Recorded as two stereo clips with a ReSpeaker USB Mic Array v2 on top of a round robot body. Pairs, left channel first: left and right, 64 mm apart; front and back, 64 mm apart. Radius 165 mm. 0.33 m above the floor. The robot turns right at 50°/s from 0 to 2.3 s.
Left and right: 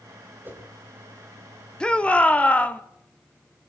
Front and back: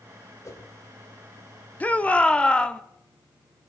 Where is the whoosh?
35° right, 3 m; by 0.7 s 25° right, 3 m.